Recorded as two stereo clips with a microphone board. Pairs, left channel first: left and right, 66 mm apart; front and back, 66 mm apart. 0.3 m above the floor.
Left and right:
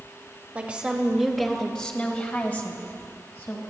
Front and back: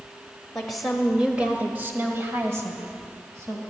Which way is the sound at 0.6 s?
70° right.